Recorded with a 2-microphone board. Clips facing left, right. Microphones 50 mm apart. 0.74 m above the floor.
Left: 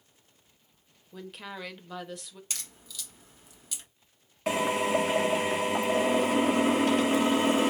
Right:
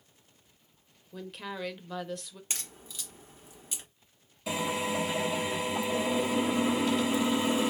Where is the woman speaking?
5° left (ahead or behind), 1.0 m.